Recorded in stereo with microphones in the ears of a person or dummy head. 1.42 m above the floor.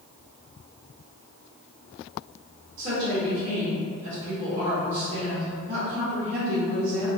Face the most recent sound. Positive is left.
turn(degrees=-35)  # may be behind; listen again after turning